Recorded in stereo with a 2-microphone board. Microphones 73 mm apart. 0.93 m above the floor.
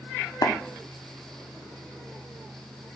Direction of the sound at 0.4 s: 60° left (ahead or behind).